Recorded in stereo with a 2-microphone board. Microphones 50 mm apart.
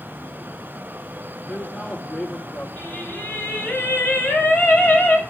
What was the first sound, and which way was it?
A man speaking, 25° left (ahead or behind).